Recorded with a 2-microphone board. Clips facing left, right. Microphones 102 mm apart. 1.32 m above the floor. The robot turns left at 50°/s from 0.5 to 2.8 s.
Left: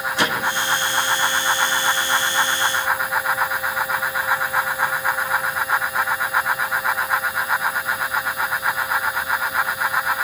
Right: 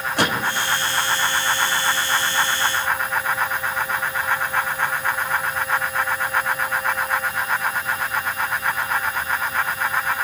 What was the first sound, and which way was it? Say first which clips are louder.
A gunshot: right 1 dB; 60° right (ahead or behind).